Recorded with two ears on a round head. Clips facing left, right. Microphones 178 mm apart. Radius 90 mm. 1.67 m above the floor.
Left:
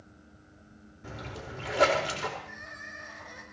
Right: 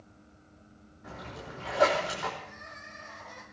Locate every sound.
1.0 s a splash: 35° left (ahead or behind), 5 m
2.4 s crying: 15° left (ahead or behind), 6.5 m